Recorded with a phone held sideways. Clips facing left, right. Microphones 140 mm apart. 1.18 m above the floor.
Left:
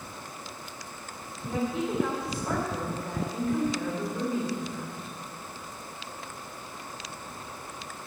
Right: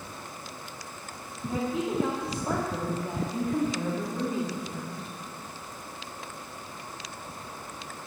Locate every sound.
1.4 s a woman speaking: 25° right (ahead or behind), 1.8 m